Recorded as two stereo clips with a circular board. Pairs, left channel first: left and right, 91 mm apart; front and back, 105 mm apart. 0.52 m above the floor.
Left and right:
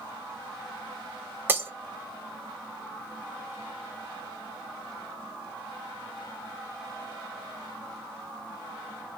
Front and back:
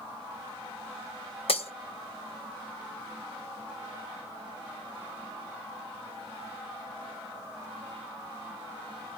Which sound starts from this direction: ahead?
Breaking glass, at 1.5 s.